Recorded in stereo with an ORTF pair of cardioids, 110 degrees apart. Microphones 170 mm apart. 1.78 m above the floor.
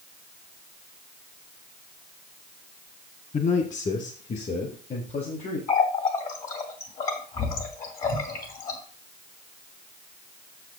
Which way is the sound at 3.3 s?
40° left.